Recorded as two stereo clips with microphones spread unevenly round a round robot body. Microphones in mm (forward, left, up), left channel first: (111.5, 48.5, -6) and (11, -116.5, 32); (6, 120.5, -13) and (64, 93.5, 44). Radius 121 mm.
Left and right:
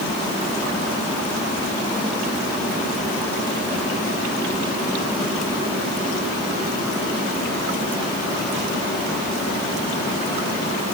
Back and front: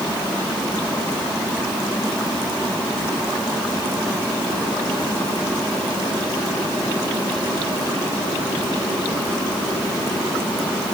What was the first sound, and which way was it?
Only background noise.